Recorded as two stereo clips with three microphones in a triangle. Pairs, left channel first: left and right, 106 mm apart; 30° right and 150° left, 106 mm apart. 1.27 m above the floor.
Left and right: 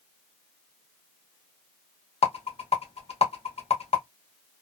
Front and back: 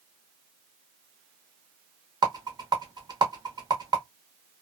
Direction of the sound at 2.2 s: 100° left.